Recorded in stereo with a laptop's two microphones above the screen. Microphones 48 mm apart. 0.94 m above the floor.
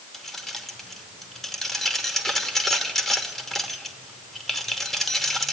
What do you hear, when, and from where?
0.1 s keys jangling: 5° left (ahead or behind), 2.5 m